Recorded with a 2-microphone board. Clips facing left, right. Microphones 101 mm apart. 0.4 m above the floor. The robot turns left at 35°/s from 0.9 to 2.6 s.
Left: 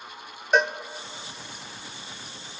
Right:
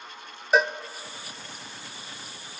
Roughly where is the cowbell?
Centre.